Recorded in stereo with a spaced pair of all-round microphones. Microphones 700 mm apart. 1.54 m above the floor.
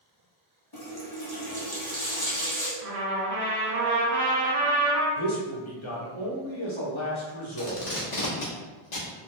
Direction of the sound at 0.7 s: 30° left (ahead or behind).